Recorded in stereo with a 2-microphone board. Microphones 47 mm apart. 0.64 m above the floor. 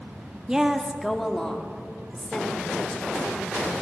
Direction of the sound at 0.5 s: 15° right (ahead or behind).